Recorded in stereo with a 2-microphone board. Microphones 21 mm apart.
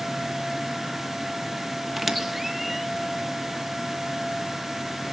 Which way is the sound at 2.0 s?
5° right (ahead or behind).